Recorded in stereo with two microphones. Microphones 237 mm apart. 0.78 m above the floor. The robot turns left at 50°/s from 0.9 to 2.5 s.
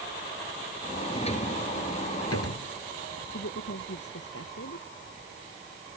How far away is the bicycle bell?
I don't hear a bicycle bell.